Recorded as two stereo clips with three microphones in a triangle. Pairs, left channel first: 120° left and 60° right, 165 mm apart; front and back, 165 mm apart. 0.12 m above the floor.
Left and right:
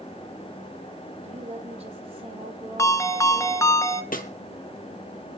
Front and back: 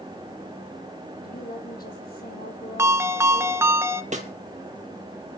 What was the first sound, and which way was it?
A woman speaking, 15° right.